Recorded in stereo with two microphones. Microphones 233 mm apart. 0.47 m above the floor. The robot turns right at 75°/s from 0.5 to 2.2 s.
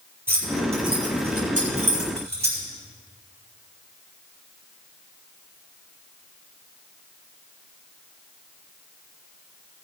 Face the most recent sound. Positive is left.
turn(degrees=-45)  # may be behind; listen again after turning